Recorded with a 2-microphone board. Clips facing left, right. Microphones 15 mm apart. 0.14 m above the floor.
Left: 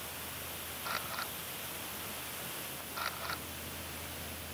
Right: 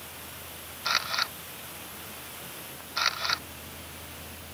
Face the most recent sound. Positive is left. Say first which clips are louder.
# right 12 dB
turn(degrees=-80)